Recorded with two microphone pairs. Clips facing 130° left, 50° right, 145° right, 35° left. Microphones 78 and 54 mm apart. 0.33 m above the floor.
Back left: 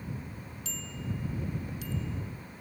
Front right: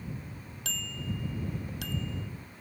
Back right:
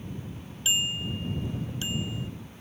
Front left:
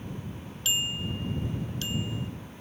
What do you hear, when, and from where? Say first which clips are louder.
0.7 s a bicycle bell: front right 2 dB, back right 2 dB; 75° right